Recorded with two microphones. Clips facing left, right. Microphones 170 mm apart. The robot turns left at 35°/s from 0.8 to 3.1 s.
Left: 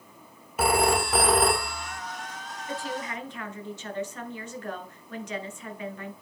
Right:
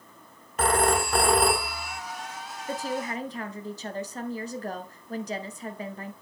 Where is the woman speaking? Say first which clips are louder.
Right 3 dB; 40° right (ahead or behind), 1.4 m; by 6.1 s 35° right (ahead or behind), 1.4 m.